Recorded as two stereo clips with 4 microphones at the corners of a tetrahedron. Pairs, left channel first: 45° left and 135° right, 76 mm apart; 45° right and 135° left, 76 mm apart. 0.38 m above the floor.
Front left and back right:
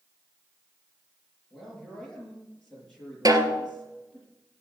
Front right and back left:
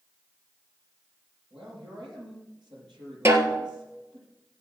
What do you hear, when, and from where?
1.5 s a man speaking: 125° left, 7 m
3.2 s a snare drum: 175° right, 2.5 m